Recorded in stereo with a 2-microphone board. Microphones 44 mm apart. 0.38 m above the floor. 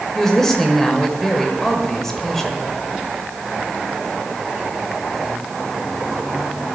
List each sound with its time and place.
0.1 s a woman speaking: 10° left (ahead or behind), 1.4 m